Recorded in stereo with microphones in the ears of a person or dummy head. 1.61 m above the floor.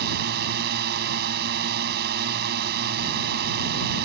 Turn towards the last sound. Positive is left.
turn(degrees=-60)  # may be behind; listen again after turning